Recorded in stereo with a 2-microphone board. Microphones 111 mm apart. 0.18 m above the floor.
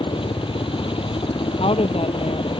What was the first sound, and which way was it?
A helicopter, 55° left (ahead or behind).